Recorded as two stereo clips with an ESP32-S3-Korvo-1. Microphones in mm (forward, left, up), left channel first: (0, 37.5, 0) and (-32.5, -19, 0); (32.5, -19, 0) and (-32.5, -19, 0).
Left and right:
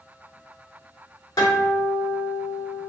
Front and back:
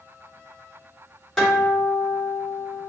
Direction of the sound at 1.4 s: 85° left.